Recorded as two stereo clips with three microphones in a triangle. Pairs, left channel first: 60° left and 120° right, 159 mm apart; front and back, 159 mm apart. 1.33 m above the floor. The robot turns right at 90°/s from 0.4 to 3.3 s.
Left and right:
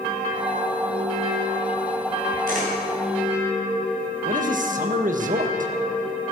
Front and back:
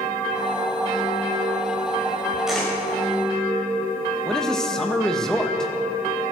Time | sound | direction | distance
2.5 | a camera shutter | 95° right | 6.5 m
4.2 | a man speaking | 85° right | 1.6 m